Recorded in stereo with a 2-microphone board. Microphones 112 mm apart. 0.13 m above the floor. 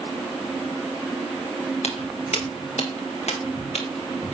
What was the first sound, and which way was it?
Footsteps, 75° left (ahead or behind).